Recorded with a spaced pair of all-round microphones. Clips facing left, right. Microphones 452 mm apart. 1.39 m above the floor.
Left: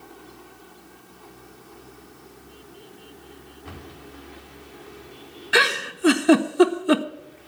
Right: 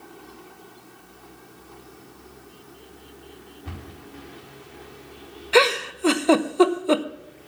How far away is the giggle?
About 0.7 m.